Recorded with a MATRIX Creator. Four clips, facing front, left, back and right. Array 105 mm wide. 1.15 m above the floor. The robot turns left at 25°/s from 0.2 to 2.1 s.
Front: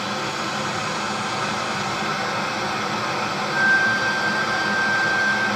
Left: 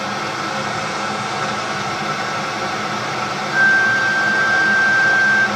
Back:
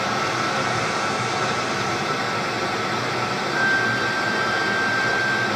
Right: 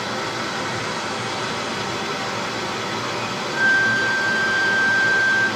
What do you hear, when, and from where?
0.0 s running water: 140° left, 1.5 m; by 5.6 s 90° left, 1.5 m
3.5 s a flute: 60° left, 0.5 m